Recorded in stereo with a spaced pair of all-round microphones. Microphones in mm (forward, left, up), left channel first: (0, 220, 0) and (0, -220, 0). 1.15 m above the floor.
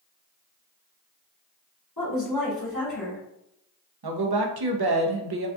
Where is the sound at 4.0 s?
65° right (ahead or behind), 0.5 m.